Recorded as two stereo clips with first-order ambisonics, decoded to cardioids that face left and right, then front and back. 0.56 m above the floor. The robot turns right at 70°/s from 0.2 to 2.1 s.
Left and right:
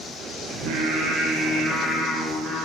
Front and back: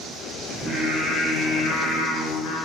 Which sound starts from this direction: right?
Singing, at 0.5 s.